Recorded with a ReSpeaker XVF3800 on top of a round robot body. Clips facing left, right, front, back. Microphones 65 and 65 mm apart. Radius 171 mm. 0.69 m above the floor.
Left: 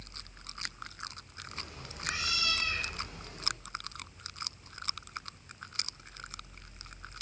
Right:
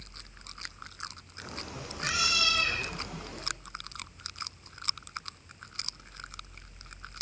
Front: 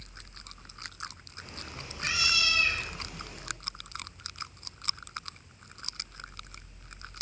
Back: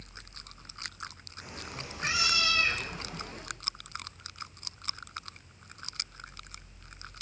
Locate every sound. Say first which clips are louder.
1.4 s a cat meowing: right 5 dB, back 2 dB; 100° right, 6.5 m; by 3.4 s 120° right, 8.5 m